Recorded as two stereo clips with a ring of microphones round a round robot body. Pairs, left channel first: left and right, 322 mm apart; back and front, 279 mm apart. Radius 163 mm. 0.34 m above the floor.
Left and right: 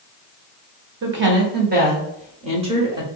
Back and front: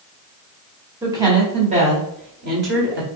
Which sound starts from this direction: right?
A woman speaking, at 1.0 s.